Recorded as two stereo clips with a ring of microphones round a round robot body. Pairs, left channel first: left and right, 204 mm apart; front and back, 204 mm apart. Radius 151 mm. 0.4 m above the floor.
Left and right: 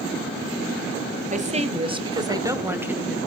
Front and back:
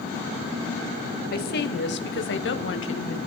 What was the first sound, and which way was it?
A woman speaking, 40° right.